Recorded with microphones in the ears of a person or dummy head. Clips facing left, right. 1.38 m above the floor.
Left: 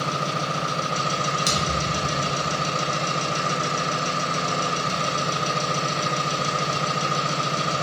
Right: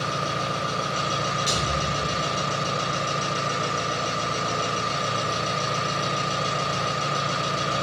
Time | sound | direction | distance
0.0 | an engine running | 80° left | 1.3 m
1.5 | a thud | 60° left (ahead or behind) | 1.3 m